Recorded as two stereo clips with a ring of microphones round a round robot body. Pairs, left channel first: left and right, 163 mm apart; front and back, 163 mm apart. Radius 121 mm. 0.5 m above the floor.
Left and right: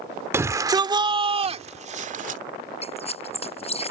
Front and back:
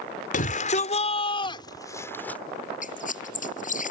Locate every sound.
0.3 s a shout: 20° right; by 2.4 s 80° right
2.8 s a squeak: 40° left